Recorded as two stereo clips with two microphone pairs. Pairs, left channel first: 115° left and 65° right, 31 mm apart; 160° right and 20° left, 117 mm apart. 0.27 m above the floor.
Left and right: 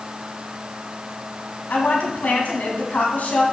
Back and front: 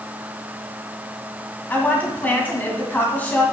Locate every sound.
1.7 s a woman speaking: 125° left, 1.8 m